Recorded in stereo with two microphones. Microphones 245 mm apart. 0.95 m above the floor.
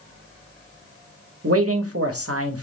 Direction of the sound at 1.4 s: 65° right (ahead or behind).